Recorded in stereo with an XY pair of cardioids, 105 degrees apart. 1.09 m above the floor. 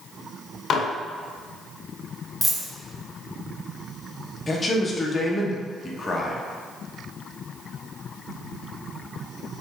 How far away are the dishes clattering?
About 0.5 m.